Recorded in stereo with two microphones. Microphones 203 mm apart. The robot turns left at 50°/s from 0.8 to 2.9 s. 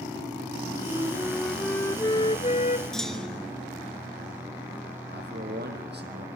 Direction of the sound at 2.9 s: 5° left (ahead or behind).